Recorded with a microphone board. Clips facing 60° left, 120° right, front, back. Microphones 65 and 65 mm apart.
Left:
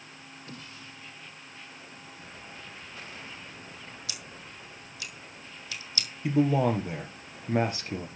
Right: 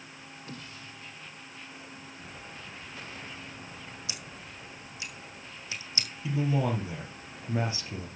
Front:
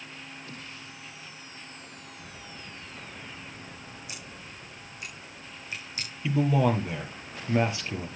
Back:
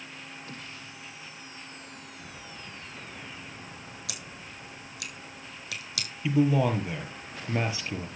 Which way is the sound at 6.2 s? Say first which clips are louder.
Left 5 dB, even; 90° left.